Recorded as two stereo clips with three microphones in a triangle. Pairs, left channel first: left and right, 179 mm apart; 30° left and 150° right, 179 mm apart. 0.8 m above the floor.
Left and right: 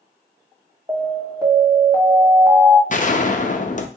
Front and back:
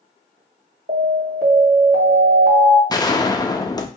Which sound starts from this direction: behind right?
An alarm, at 0.9 s.